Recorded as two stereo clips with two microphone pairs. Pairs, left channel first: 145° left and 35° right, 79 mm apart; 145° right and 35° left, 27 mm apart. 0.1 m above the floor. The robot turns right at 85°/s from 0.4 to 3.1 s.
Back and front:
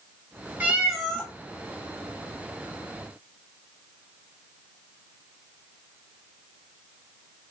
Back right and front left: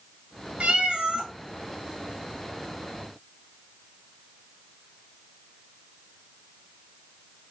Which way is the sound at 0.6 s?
20° left.